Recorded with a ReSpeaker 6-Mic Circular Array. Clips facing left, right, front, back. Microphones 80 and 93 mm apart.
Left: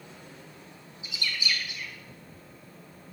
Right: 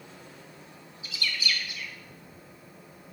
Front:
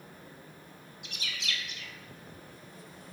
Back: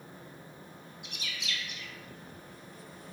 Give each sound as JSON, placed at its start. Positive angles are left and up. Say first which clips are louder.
{"t": 1.0, "sound": "a bird", "louder": "even, front 2 dB", "azimuth_deg": 20, "distance_m": 0.6}